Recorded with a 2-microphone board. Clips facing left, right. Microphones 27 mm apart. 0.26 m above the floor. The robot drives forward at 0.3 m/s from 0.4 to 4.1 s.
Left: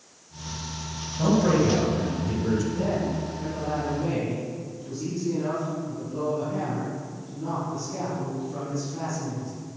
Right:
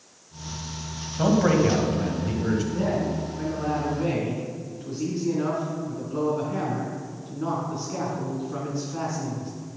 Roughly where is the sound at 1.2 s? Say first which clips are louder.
Right 1 dB; right.